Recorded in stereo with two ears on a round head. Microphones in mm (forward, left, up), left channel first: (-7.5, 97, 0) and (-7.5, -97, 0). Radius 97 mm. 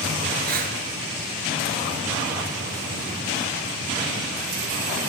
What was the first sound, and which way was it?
Breathing, 45° right (ahead or behind).